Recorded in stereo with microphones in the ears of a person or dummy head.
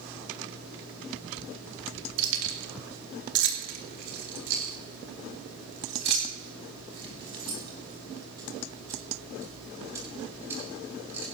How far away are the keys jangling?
About 2 m.